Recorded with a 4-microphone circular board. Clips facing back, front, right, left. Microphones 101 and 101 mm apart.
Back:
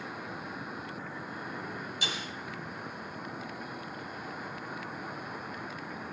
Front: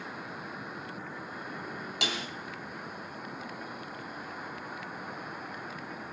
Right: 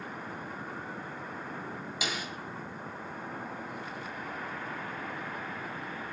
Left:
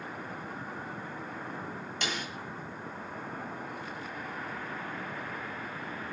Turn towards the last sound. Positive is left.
turn(degrees=-5)